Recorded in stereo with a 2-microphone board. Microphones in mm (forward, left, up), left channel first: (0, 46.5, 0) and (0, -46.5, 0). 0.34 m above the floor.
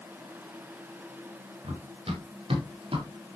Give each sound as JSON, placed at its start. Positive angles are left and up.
{"t": 1.6, "sound": "running footsteps", "side_deg": -85, "distance_m": 4.5}